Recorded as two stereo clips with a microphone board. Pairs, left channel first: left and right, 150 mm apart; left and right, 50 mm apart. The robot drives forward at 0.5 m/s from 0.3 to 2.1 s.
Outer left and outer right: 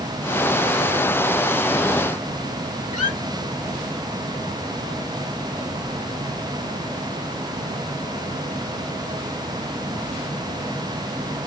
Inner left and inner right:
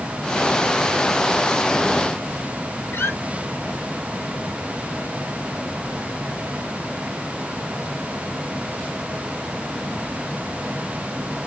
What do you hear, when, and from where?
2.9 s a squeak: 60° left (ahead or behind), 0.6 m